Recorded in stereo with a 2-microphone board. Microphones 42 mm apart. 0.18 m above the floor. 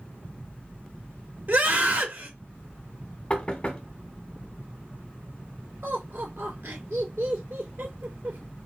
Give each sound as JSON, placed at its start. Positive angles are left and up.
{"t": 1.5, "sound": "a scream", "side_deg": -50, "distance_m": 2.5}
{"t": 3.3, "sound": "knocking", "side_deg": 25, "distance_m": 0.9}
{"t": 5.8, "sound": "laughter", "side_deg": -65, "distance_m": 3.0}